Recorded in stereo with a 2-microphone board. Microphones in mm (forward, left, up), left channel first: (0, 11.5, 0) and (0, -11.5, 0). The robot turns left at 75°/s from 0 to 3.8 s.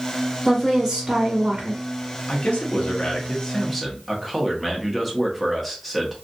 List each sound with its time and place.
0.5 s a woman speaking: straight ahead, 1.6 m; by 1.8 s 100° right, 1.6 m
2.3 s a man speaking: 115° left, 1.1 m; by 6.1 s straight ahead, 1.1 m